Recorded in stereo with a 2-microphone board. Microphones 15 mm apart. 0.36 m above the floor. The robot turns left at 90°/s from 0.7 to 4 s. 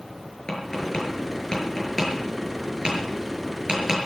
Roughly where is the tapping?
Left.